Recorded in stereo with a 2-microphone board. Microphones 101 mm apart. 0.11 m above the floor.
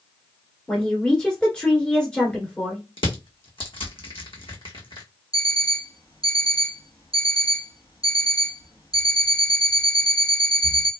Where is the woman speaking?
10° left (ahead or behind), 1.3 m.